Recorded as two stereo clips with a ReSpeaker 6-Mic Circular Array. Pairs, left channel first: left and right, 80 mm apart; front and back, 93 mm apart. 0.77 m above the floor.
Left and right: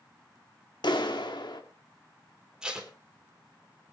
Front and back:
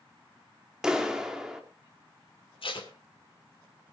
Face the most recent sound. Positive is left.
turn(degrees=-10)